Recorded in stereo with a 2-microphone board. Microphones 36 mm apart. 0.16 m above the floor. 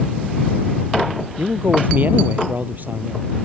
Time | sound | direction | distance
1.4 | a man speaking | 50° right (ahead or behind) | ?